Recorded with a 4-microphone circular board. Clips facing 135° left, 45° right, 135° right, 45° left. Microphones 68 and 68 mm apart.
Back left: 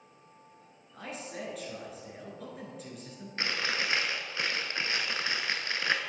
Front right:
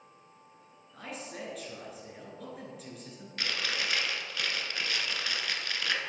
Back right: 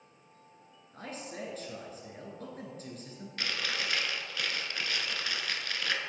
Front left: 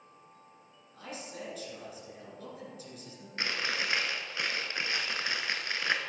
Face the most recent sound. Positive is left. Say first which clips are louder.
# back left 2 dB, front left 2 dB
turn(degrees=95)